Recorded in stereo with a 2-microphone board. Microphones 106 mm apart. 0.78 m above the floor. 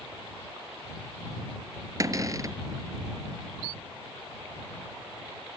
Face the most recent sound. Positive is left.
turn(degrees=-30)  # may be behind; listen again after turning